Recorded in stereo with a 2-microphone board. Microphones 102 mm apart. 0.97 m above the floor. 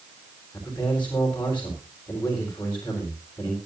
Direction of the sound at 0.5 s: 15° left (ahead or behind).